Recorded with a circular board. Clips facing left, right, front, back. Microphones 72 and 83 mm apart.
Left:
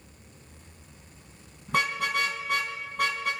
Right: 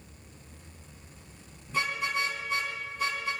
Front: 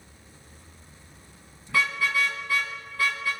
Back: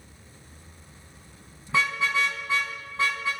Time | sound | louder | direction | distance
1.7 | a car horn | left 4 dB, back 1 dB | 110° left | 4 m